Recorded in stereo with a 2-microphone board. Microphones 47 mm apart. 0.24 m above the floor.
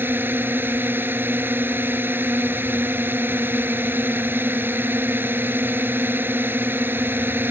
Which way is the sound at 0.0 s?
55° right (ahead or behind).